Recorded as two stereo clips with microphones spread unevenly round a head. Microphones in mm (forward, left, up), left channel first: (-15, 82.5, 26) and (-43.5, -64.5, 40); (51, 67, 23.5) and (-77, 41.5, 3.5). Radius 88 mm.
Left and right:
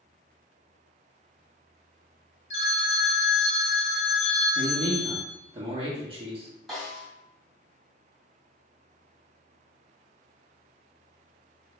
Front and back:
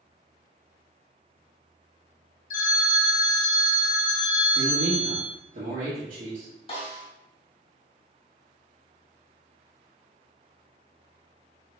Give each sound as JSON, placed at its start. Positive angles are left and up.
{"t": 2.5, "sound": "a phone ringing", "azimuth_deg": 25, "distance_m": 0.7}
{"t": 4.5, "sound": "a man speaking", "azimuth_deg": -155, "distance_m": 1.2}
{"t": 6.7, "sound": "a snare drum", "azimuth_deg": -15, "distance_m": 1.1}